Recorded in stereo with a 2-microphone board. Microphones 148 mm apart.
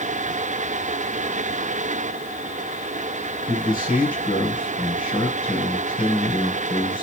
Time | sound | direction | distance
3.5 | a man speaking | 65° left (ahead or behind) | 2 m